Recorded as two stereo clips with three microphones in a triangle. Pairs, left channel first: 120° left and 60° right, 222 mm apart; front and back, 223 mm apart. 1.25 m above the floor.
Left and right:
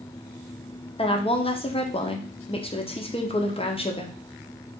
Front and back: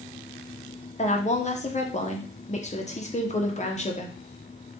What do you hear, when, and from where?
1.0 s a woman speaking: 55° left, 0.7 m